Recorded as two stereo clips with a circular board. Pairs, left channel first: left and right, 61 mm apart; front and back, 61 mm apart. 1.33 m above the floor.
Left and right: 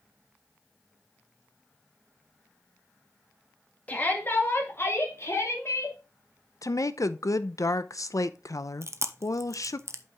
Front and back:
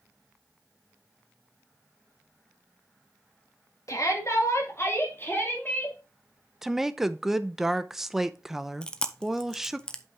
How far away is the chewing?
About 0.7 m.